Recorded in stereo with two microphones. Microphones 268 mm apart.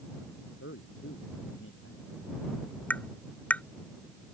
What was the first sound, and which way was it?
A man speaking, 50° left (ahead or behind).